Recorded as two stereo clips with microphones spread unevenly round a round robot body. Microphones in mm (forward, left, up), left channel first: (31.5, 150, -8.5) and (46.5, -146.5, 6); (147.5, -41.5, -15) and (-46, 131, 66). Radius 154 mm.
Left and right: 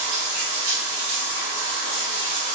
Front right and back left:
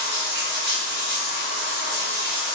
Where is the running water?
155° right, 0.8 m.